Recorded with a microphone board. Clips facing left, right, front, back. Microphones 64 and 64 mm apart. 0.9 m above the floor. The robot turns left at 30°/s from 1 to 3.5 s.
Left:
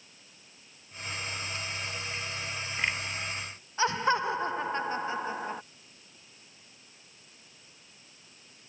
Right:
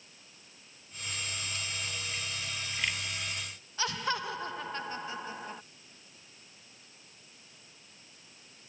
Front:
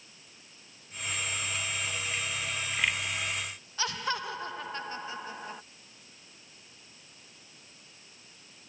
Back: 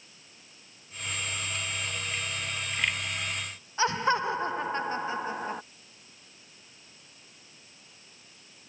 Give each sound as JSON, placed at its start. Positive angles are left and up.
{"t": 3.8, "sound": "laughter", "azimuth_deg": 135}